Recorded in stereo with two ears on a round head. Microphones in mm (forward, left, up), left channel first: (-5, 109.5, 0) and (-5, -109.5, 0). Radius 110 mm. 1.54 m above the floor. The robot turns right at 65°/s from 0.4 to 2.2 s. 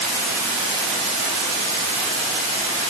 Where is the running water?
150° right, 1.2 m; by 2.9 s 35° right, 1.2 m.